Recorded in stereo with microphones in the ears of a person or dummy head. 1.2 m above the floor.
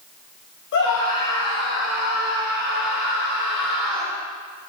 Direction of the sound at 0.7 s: 60° left (ahead or behind).